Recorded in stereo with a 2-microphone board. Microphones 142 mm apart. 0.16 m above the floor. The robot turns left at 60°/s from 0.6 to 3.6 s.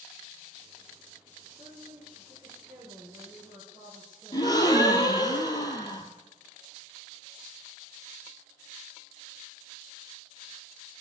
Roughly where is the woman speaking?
Right.